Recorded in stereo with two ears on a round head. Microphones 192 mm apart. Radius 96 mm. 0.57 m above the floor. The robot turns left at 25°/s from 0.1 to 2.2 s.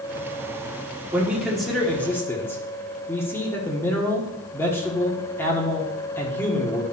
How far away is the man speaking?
About 1.2 m.